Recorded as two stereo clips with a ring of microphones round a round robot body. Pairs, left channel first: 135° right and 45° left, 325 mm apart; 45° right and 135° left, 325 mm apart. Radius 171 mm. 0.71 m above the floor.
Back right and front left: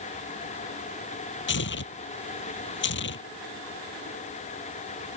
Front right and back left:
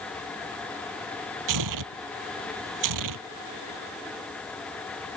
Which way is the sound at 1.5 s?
165° left.